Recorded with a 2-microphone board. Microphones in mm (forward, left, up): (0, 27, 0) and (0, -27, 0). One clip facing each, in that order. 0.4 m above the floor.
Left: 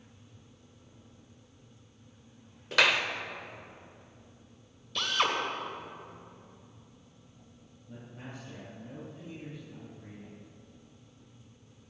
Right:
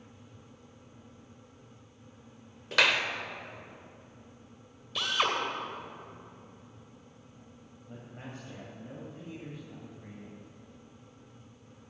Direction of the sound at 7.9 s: 50° right (ahead or behind).